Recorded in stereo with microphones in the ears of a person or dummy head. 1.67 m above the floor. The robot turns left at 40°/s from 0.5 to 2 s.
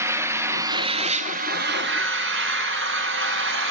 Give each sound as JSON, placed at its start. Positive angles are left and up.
{"t": 0.0, "sound": "an engine running", "azimuth_deg": -15, "distance_m": 1.4}